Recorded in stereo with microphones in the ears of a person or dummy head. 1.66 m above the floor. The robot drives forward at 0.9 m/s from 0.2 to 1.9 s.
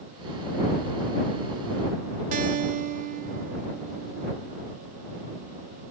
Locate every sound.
2.3 s a guitar: 45° right (ahead or behind), 0.9 m